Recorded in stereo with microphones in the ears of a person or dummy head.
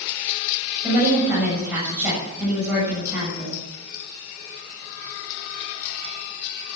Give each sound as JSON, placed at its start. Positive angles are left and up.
{"t": 0.8, "sound": "a woman speaking", "side_deg": -10, "distance_m": 7.5}